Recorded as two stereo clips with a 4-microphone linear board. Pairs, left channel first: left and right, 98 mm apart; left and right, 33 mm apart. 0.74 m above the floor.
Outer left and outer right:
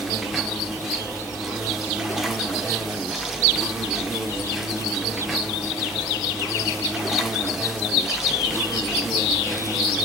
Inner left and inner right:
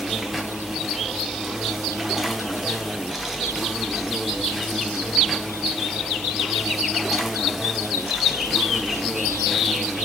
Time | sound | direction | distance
0.0 | an insect | 5° right (ahead or behind) | 0.7 m